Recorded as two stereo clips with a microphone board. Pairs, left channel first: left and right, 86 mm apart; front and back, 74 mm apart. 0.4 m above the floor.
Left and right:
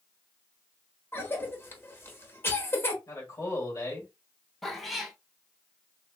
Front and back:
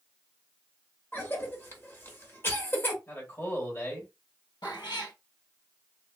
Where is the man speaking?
50° left, 1.8 m.